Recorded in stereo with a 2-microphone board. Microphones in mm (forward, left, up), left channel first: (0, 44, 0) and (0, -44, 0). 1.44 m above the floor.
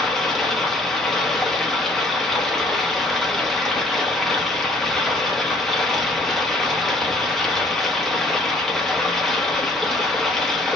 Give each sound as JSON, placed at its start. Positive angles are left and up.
{"t": 0.0, "sound": "running water", "side_deg": 5, "distance_m": 0.9}